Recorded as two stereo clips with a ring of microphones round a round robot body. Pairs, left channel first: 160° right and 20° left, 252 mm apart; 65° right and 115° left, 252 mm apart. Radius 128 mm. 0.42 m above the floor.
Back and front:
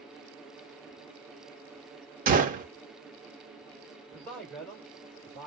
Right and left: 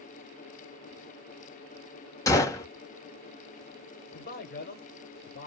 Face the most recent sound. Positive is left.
turn(degrees=-70)